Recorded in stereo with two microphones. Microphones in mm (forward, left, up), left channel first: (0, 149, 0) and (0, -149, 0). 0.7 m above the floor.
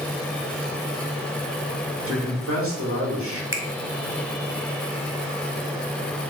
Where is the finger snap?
45° right (ahead or behind), 1.1 m.